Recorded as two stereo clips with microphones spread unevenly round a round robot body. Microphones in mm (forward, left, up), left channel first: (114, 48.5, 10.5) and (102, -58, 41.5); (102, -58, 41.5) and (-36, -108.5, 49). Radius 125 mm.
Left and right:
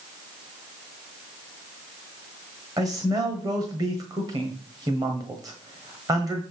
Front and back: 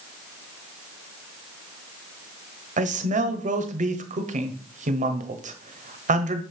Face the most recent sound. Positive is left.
turn(degrees=-165)